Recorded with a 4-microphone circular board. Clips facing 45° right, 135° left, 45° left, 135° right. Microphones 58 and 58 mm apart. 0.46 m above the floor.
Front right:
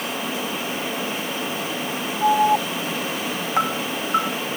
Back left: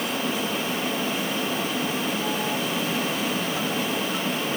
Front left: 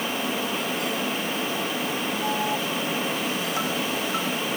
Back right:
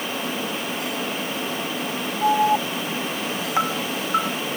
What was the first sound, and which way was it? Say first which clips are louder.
An alarm: front right 9 dB, back right 11 dB; 80° right.